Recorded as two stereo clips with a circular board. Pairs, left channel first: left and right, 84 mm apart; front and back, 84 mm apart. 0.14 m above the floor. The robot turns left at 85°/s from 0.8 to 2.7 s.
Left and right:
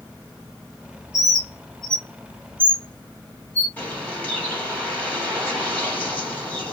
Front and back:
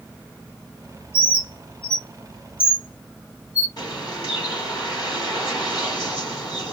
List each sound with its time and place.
1.1 s a bird: 170° right, 1.6 m; by 3.7 s 55° left, 1.6 m
3.8 s a bird: 25° left, 3.5 m